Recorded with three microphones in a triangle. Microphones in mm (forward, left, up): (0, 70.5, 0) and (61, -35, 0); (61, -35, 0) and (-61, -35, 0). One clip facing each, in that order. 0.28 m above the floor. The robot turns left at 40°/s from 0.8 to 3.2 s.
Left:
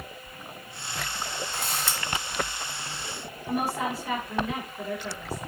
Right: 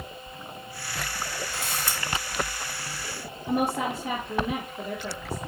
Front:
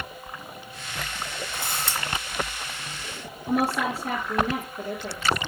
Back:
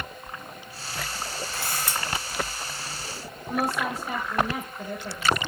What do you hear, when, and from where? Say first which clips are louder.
1.5 s a camera shutter: left 1 dB, even; 70° left, 2 m; by 2.0 s 55° left, 2 m
3.5 s a woman speaking: right 2 dB, front 3 dB; 10° left, 4.5 m